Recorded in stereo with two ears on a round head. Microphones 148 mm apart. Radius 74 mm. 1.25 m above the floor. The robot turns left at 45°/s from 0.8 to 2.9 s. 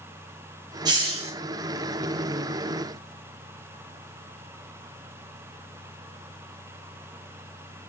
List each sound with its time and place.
0.8 s a hiss: 25° right (ahead or behind), 0.7 m; by 1.3 s 45° right (ahead or behind), 0.7 m